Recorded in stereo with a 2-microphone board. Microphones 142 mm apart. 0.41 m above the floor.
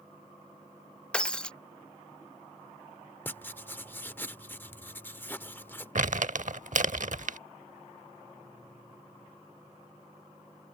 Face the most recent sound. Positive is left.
turn(degrees=-65)  # may be behind; listen again after turning